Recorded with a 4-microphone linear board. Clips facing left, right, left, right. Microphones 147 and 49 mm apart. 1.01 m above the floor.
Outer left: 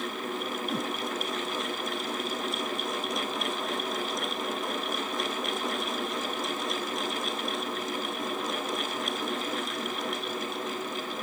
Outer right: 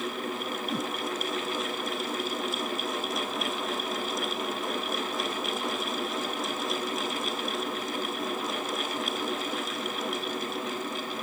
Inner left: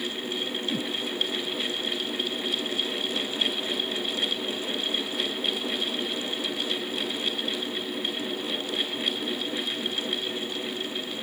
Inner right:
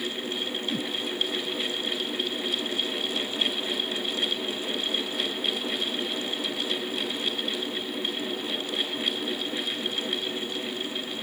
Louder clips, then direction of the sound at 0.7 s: Even, inner left 1 dB; centre (ahead or behind).